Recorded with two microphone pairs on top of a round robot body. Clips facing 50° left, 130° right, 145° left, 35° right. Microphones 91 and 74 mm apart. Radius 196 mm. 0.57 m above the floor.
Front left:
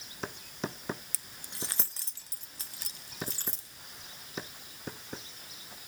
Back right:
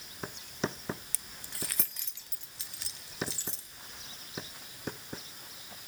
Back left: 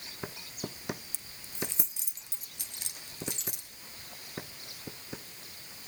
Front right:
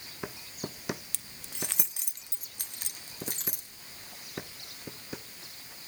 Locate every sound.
1.1 s keys jangling: 45° right, 0.6 m; by 3.7 s 10° left, 2 m